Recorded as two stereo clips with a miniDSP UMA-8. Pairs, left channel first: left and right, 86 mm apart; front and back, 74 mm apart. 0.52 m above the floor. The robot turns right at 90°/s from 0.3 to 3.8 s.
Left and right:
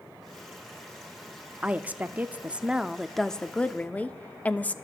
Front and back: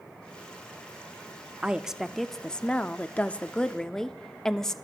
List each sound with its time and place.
1.6 s a woman speaking: 135° right, 0.6 m; by 4.8 s 65° left, 0.6 m